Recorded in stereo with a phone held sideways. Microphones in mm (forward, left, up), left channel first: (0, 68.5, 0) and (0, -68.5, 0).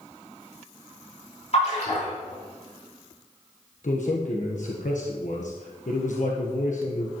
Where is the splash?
50° left (ahead or behind), 5 m.